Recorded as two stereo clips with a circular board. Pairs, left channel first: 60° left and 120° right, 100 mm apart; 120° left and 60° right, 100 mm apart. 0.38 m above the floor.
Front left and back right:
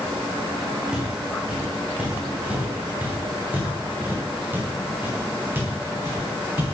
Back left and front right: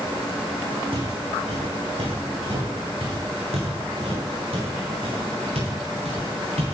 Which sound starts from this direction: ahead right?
Footsteps, at 0.9 s.